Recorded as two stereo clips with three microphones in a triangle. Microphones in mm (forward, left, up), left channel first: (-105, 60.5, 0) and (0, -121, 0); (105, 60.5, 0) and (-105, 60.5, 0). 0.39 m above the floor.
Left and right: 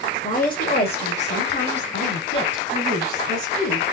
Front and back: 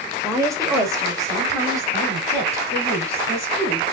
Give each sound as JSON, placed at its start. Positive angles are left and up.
{"t": 0.2, "sound": "a woman speaking", "azimuth_deg": 115, "distance_m": 1.3}